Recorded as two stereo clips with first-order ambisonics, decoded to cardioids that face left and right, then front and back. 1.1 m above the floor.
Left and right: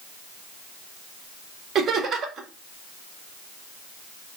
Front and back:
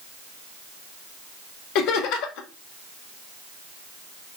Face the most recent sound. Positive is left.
turn(degrees=-30)